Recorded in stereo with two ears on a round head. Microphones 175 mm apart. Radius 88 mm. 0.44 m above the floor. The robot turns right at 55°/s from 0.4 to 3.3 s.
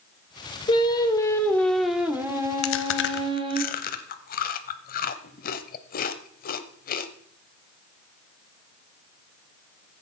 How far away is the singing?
About 1.4 m.